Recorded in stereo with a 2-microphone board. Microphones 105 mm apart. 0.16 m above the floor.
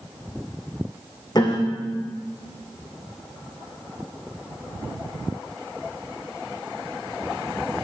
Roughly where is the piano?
Left.